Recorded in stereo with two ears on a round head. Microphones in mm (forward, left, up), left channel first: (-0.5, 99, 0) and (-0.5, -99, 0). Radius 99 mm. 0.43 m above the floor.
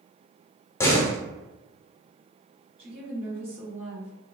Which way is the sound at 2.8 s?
25° right (ahead or behind).